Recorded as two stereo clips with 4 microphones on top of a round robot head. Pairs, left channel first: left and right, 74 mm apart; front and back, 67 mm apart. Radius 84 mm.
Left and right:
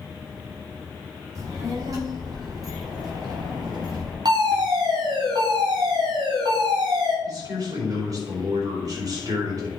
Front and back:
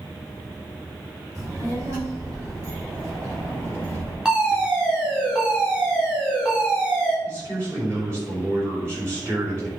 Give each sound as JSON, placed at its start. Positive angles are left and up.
{"t": 1.4, "sound": "a child speaking", "azimuth_deg": -135, "distance_m": 3.5}
{"t": 4.2, "sound": "a fire alarm", "azimuth_deg": -110, "distance_m": 4.0}
{"t": 7.2, "sound": "a man speaking", "azimuth_deg": -125, "distance_m": 4.5}